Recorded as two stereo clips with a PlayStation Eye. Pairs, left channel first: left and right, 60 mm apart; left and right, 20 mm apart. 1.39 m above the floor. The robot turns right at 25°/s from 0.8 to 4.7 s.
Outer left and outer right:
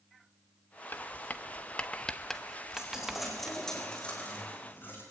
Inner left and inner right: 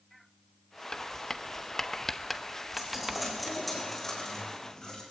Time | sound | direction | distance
0.9 | writing | 35° left (ahead or behind) | 1.0 m
2.7 | a dropped coin | 15° right | 4.5 m